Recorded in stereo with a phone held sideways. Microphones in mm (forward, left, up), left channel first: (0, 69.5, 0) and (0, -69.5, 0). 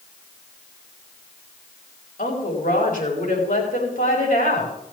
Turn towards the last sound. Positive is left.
turn(degrees=65)  # may be behind; listen again after turning